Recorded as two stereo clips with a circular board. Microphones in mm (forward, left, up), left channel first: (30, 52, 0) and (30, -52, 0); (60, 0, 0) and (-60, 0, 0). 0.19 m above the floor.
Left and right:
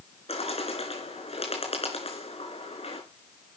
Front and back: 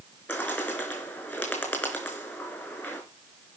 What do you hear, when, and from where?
0.3 s a bird: 75° left, 3.5 m